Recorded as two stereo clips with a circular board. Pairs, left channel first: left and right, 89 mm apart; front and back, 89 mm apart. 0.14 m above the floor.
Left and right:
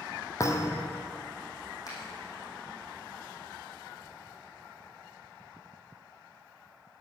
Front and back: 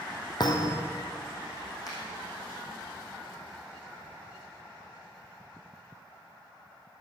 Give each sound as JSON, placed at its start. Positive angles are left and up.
{"t": 0.4, "sound": "a thud", "azimuth_deg": 35, "distance_m": 1.3}
{"t": 1.9, "sound": "a finger snap", "azimuth_deg": 40, "distance_m": 5.0}